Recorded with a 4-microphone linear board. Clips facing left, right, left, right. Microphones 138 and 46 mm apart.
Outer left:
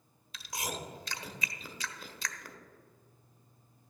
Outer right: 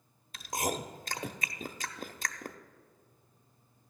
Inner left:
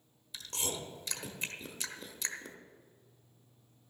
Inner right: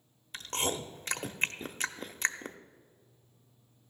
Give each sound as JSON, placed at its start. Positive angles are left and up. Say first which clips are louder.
{"t": 0.3, "sound": "chewing", "louder": "outer right 6 dB, inner right 6 dB", "side_deg": -50, "distance_m": 0.6}